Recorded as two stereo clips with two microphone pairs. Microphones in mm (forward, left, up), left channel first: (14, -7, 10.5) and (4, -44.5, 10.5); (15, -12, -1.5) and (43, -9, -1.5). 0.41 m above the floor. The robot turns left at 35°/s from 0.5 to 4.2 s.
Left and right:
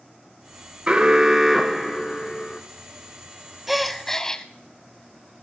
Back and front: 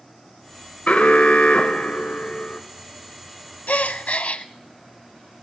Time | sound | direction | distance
0.9 | an alarm | 160° right | 1.1 m
3.7 | a gasp | 170° left | 0.6 m